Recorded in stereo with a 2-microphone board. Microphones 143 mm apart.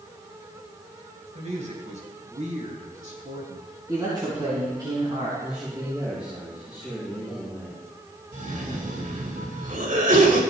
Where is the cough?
70° right (ahead or behind), 3 m.